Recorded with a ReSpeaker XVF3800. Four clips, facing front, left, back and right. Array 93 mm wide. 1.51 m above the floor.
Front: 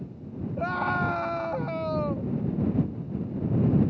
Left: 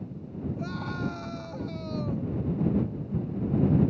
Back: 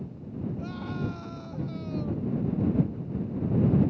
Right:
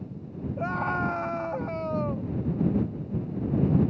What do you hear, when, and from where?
0.6 s a scream: 35° right